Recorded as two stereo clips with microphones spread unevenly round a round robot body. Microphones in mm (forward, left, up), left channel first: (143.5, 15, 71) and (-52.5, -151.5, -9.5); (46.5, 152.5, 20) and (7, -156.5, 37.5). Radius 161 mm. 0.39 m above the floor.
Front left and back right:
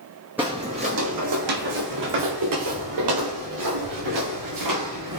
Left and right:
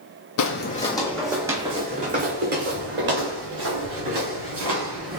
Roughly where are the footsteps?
Behind left.